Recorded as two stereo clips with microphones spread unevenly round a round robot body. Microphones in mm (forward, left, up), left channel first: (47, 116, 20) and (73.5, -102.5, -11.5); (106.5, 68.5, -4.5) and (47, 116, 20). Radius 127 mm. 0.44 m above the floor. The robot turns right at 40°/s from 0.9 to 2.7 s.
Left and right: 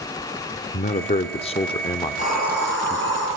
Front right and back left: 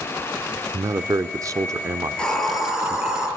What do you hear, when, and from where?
0.7 s a man speaking: 115° left, 0.8 m; by 3.0 s 170° right, 0.8 m
2.0 s a hiss: 35° left, 5.5 m; by 3.3 s 60° left, 5.5 m